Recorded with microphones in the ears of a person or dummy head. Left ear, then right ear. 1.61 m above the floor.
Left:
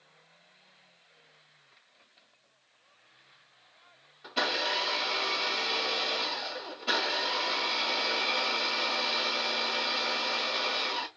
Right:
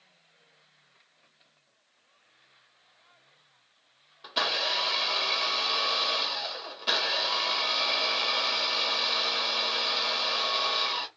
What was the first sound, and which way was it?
A blender, 45° right (ahead or behind).